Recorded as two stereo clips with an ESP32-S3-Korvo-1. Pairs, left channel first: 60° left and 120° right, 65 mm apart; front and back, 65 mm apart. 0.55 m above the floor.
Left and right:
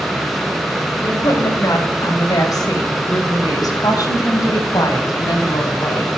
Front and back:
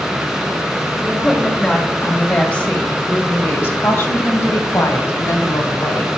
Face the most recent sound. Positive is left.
turn(degrees=30)